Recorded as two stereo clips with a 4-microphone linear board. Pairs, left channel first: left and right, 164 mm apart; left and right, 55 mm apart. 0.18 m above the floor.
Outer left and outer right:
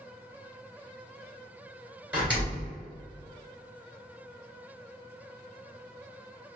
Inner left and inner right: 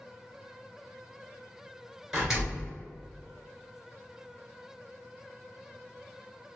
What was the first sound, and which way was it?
A door slam, 10° right (ahead or behind).